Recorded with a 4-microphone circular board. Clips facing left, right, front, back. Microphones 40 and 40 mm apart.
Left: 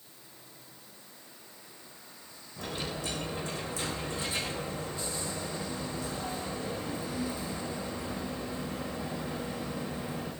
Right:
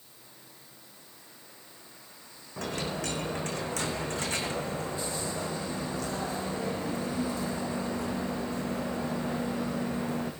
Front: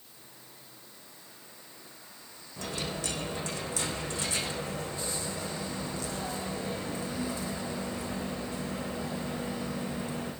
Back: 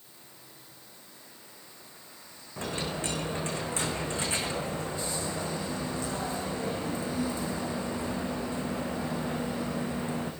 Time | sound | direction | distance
2.6 | a dropped coin | 120° right | 4 m